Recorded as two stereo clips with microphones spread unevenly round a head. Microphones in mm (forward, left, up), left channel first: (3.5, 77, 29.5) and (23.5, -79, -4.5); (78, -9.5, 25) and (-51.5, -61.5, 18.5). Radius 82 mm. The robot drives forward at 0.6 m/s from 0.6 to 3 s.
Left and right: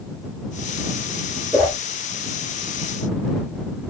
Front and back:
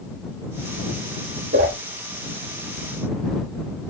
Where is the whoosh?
165° right, 3.5 m.